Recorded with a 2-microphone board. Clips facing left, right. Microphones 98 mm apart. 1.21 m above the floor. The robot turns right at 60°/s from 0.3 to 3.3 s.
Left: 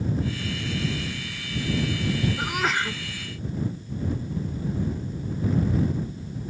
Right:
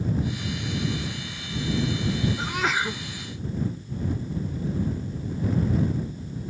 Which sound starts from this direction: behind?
A sneeze, at 2.4 s.